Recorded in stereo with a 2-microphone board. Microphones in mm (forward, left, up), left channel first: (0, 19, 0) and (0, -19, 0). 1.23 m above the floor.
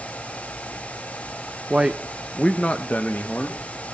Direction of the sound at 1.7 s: 25° right (ahead or behind).